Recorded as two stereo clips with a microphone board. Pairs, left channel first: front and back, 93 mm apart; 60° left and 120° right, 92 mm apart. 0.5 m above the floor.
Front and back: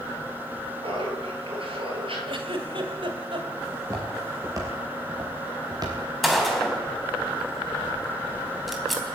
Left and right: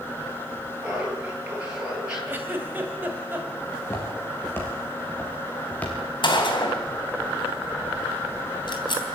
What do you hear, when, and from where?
0.8 s laughter: 165° left, 9 m; by 2.2 s 160° left, 10 m
2.3 s a giggle: 175° left, 2.5 m
3.7 s footsteps: 125° left, 7 m; by 6.0 s 135° left, 6 m
6.2 s a gunshot: 90° left, 3 m